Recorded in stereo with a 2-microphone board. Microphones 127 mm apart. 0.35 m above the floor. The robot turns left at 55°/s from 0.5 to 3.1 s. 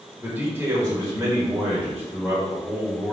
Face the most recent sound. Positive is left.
turn(degrees=5)  # may be behind; listen again after turning